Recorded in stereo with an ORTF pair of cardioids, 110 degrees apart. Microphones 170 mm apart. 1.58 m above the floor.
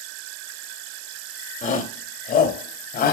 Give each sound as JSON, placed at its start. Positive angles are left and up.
{"t": 1.6, "sound": "a shout", "azimuth_deg": 50, "distance_m": 2.5}